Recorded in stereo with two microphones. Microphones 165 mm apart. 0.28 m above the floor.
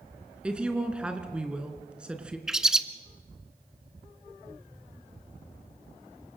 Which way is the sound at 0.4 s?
5° right (ahead or behind).